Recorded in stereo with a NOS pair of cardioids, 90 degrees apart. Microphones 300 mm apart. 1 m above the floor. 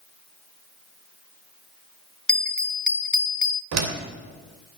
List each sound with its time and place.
2.3 s a bell: 5° left, 0.9 m
3.7 s a door slam: 65° right, 3 m